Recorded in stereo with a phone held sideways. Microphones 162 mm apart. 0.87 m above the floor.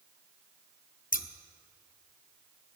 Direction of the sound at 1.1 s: 60° left (ahead or behind).